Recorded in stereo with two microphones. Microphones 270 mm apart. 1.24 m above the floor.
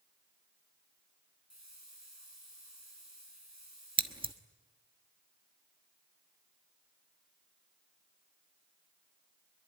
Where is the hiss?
80° right, 9.5 m.